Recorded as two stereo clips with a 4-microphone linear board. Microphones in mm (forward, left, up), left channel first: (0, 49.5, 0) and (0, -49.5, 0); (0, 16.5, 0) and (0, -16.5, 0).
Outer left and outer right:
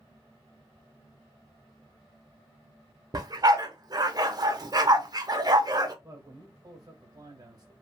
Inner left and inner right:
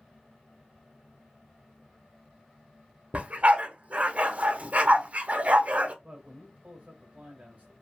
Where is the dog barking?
40° right (ahead or behind), 0.5 m.